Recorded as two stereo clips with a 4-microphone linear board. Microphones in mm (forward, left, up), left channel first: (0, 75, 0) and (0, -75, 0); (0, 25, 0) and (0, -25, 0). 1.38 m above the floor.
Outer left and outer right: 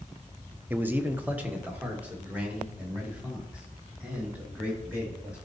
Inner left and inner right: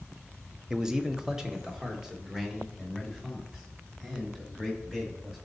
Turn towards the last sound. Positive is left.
turn(degrees=-10)  # may be behind; listen again after turning